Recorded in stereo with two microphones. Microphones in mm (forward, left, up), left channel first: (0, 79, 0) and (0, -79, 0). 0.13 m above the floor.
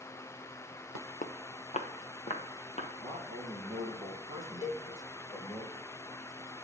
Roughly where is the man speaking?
Left.